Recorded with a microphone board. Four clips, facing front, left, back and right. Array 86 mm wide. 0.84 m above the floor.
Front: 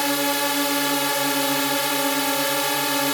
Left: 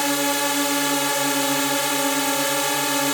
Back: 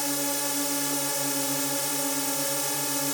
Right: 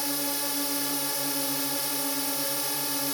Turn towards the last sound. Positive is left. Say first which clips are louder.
# left 11 dB, front 8 dB
turn(degrees=50)